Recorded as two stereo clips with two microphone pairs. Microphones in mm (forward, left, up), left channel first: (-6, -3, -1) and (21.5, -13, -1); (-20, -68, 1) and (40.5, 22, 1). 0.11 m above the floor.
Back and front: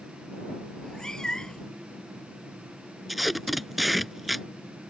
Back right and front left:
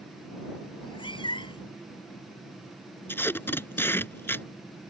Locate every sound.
0.8 s a cat meowing: 135° right
3.1 s tape being pulled: 105° right